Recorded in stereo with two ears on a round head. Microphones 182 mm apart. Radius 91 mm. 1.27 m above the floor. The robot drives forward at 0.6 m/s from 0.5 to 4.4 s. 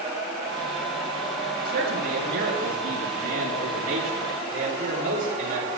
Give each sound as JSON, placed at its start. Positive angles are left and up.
{"t": 1.6, "sound": "a man speaking", "side_deg": -55, "distance_m": 9.0}